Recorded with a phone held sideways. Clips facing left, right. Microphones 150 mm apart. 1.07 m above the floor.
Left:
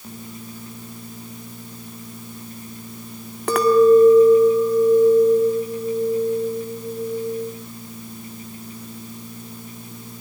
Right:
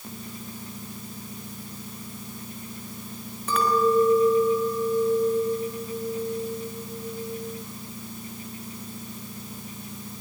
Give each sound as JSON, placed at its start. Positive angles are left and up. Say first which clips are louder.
{"t": 3.5, "sound": "a clink", "louder": "left 10 dB", "side_deg": 75, "distance_m": 2.0}